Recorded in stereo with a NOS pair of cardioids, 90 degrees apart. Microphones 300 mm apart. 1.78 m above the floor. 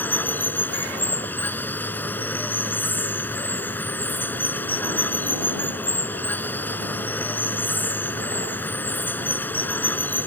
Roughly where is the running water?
Ahead.